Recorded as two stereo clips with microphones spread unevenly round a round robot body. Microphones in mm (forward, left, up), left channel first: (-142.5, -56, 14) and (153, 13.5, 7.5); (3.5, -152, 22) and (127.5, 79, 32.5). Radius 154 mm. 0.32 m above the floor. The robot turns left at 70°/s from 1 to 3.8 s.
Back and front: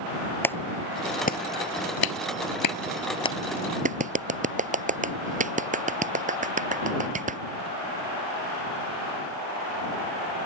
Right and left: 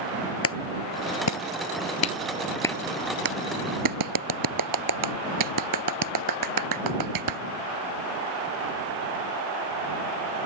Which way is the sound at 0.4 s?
85° right.